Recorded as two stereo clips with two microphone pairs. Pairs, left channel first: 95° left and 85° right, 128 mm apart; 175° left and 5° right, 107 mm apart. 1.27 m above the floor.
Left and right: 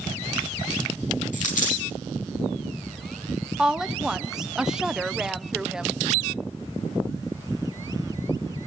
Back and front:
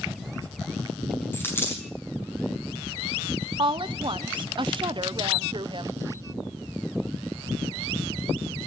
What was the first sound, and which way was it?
A dropped coin, 105° left.